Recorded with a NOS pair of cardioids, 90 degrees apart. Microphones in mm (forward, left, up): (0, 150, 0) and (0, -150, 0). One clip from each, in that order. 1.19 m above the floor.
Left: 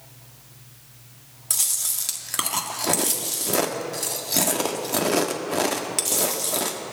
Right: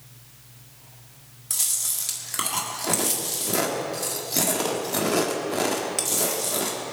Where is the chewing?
25° left, 1.6 m.